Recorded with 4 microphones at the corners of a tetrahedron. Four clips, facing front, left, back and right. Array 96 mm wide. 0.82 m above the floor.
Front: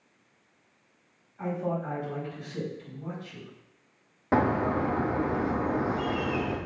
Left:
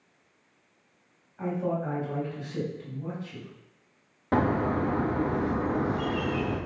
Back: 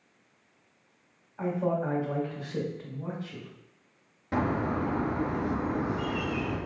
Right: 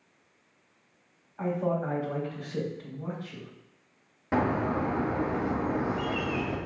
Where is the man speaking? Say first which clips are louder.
Right 1 dB, back 2 dB; 145° right, 3.5 m.